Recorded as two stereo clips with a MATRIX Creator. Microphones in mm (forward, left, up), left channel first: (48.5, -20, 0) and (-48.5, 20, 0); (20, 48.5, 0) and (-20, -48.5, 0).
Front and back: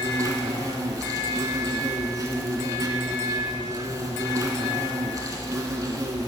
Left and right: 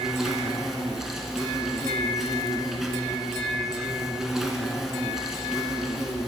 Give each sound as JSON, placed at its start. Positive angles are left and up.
{"t": 0.0, "sound": "an insect", "azimuth_deg": 165, "distance_m": 0.8}